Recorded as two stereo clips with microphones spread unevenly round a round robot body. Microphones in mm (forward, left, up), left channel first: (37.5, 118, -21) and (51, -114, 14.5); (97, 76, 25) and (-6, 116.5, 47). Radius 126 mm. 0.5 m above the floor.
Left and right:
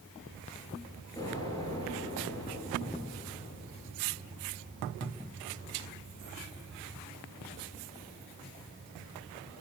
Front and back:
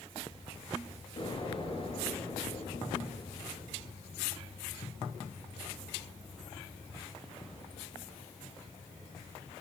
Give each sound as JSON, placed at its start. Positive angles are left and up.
{"t": 1.2, "sound": "an explosion", "azimuth_deg": 20, "distance_m": 8.5}